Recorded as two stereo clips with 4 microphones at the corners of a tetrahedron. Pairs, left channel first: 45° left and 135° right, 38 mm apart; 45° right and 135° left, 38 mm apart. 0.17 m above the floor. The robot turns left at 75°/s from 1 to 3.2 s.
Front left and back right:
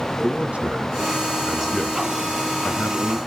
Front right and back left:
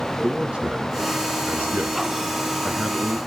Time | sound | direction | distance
0.2 | a man speaking | 170° right | 1.4 m